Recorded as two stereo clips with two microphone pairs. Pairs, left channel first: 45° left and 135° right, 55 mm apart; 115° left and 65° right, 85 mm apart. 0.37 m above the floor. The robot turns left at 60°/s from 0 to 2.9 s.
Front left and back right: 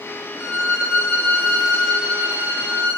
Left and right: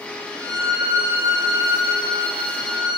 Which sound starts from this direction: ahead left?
A violin, at 0.4 s.